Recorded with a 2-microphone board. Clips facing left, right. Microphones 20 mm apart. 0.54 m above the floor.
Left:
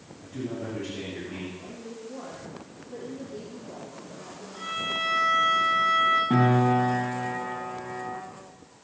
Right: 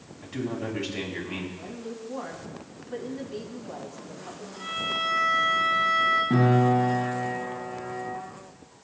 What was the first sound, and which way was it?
A man speaking, 60° right (ahead or behind).